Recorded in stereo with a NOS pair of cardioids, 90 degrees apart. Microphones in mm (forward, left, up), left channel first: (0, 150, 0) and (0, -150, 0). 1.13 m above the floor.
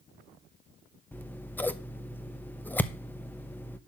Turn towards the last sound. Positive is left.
turn(degrees=5)